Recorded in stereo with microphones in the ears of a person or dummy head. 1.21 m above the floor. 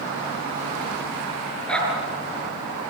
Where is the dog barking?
10° left (ahead or behind), 7 m.